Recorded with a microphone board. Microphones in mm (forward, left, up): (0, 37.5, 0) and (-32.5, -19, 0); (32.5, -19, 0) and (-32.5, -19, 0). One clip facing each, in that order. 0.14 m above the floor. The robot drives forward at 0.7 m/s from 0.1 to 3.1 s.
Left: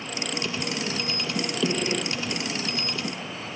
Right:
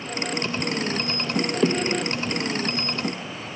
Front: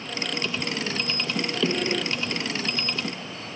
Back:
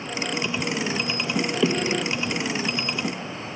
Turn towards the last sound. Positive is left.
turn(degrees=-90)